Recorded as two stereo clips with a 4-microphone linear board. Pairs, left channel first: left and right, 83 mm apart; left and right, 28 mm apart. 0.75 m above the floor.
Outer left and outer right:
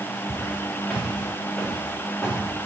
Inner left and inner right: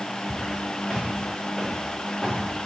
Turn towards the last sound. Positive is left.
turn(degrees=20)  # may be behind; listen again after turning